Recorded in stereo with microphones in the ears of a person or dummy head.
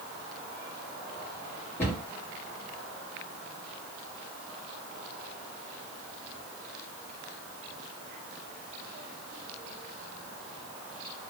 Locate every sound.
1.8 s a cupboard door: 15° left (ahead or behind), 1.6 m